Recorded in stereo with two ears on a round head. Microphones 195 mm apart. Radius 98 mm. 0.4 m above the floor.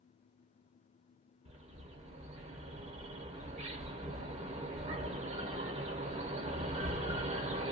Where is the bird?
30° right (ahead or behind), 0.7 m.